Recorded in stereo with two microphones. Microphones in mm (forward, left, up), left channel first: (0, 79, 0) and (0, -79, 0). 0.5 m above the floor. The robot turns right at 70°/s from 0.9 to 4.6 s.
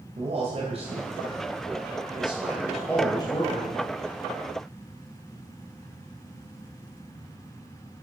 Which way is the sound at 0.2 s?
130° right.